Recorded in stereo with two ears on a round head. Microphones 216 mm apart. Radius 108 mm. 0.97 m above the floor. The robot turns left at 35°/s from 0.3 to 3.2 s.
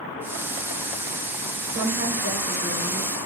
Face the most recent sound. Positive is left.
turn(degrees=-100)